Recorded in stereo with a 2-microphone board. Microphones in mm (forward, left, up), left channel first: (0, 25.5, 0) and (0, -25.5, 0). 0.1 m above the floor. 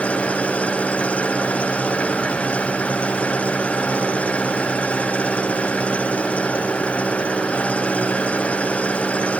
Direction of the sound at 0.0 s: 25° left (ahead or behind).